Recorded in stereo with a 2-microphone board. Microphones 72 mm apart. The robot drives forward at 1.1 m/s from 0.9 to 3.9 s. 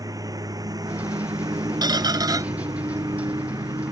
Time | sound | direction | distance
0.0 | a lawn mower | 55° right (ahead or behind) | ?
1.8 | a squeak | 80° right | ?